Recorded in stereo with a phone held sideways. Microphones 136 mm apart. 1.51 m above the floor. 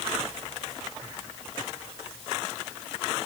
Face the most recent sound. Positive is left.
No sound to turn to.